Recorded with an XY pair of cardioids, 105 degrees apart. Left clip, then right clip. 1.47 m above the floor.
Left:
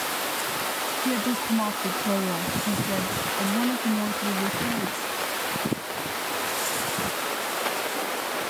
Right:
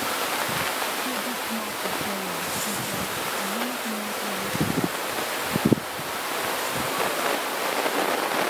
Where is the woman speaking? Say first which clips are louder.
Left 2 dB; 55° left.